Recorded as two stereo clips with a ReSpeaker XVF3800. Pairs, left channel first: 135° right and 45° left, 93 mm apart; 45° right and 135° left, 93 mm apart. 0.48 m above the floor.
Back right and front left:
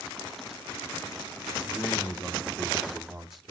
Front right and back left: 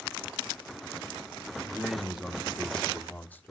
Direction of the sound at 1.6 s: 170° right.